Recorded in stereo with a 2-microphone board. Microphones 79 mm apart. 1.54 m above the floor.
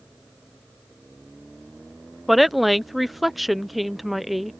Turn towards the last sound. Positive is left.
turn(degrees=0)  # may be behind; listen again after turning